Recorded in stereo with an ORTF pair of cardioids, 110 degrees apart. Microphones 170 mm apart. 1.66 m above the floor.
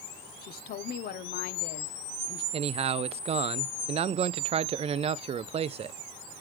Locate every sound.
0.4 s a woman speaking: 55° left, 0.9 m
2.5 s a man speaking: 35° right, 0.5 m